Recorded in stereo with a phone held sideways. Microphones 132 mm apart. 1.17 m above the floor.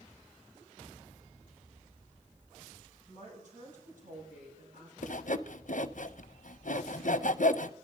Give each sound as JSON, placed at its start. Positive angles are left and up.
{"t": 3.1, "sound": "a woman speaking", "side_deg": -65, "distance_m": 7.0}
{"t": 5.0, "sound": "sawing", "side_deg": 65, "distance_m": 0.5}